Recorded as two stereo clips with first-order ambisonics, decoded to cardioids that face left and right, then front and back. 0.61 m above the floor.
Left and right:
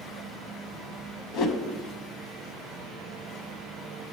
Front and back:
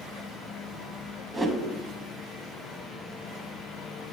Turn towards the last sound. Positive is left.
turn(degrees=95)